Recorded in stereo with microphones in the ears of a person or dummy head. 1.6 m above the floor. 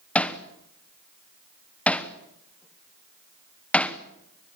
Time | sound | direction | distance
0.1 | hammering | centre (ahead or behind) | 0.9 m